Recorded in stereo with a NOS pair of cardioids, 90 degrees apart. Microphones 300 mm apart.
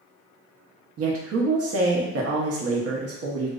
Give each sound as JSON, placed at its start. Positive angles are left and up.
{"t": 1.0, "sound": "a woman speaking", "azimuth_deg": -50, "distance_m": 0.8}